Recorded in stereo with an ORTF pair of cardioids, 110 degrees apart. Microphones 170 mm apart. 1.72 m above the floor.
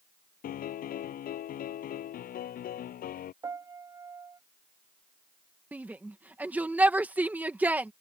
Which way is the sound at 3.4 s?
20° right.